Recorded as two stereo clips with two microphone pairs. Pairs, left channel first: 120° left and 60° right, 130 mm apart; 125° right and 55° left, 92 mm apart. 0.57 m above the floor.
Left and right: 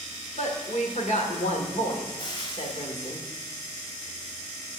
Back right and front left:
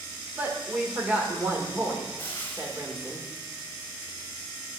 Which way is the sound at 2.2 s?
170° left.